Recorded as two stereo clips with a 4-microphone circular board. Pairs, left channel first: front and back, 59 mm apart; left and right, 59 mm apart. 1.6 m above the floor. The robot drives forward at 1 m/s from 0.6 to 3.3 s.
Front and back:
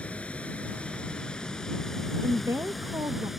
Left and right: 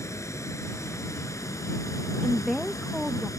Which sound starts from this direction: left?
Running water, at 0.0 s.